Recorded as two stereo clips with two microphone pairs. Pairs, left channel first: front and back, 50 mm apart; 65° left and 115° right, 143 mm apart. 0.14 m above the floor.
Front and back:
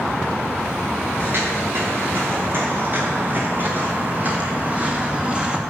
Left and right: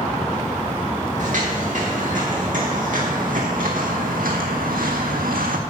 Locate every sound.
1.2 s footsteps: 140° right, 4.5 m; by 5.6 s 105° right, 2 m